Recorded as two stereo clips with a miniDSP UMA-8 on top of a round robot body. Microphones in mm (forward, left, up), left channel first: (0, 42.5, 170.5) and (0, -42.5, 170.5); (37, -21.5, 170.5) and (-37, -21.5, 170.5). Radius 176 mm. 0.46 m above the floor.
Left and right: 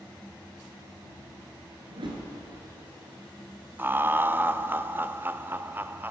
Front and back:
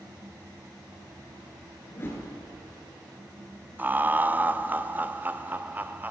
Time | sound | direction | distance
1.9 | a whoosh | 60° right | 3 m
3.8 | laughter | 135° right | 0.7 m